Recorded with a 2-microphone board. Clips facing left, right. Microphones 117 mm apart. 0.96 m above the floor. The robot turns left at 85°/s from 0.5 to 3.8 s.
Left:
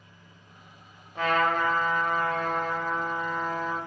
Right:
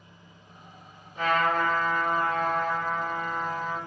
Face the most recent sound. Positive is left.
turn(degrees=-160)